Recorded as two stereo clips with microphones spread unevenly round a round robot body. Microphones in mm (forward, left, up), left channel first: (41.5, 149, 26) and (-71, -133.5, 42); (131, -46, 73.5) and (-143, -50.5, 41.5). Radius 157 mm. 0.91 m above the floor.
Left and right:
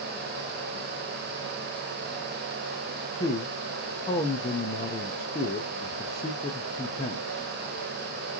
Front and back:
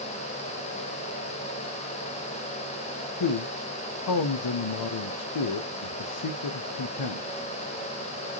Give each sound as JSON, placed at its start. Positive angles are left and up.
{"t": 3.2, "sound": "a man speaking", "azimuth_deg": -5, "distance_m": 0.6}